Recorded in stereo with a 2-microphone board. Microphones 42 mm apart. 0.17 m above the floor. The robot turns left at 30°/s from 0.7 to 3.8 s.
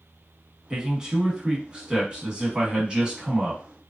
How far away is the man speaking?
About 1.1 m.